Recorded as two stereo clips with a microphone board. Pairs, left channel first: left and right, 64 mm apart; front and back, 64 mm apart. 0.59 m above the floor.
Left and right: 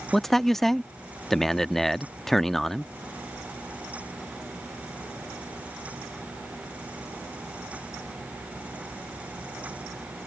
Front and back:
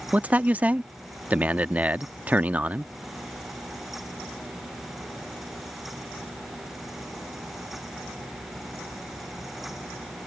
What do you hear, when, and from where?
0.1 s a man speaking: 165° left